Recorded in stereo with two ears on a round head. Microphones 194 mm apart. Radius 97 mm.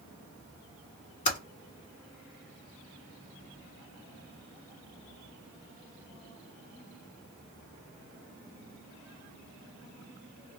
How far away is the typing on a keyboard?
About 1.8 m.